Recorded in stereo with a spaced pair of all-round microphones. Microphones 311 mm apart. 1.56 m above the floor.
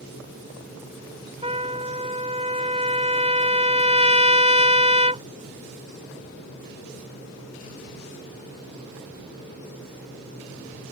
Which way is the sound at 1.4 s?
20° right (ahead or behind).